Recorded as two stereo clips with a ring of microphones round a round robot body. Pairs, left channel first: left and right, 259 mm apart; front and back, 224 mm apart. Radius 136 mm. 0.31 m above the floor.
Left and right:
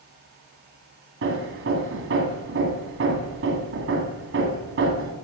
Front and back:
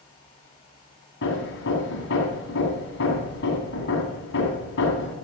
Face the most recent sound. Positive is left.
turn(degrees=-45)